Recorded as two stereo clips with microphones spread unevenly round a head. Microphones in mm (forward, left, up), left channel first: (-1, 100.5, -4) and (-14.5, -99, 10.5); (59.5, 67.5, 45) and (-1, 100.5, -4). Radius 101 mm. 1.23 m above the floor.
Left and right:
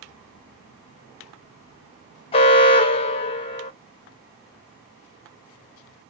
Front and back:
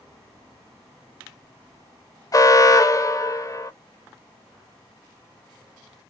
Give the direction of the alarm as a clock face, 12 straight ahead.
11 o'clock.